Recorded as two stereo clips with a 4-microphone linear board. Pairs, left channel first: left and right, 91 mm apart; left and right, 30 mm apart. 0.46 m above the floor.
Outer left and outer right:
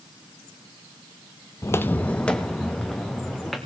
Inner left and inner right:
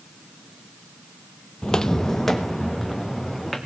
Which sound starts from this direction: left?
Footsteps, at 1.6 s.